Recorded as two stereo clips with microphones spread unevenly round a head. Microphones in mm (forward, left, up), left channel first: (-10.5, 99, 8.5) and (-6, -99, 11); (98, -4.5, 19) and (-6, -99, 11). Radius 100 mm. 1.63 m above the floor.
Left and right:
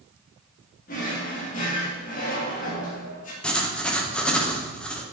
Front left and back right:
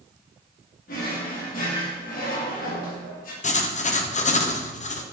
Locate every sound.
0.9 s a drawer: 45° left, 1.7 m
3.4 s writing: 5° left, 1.0 m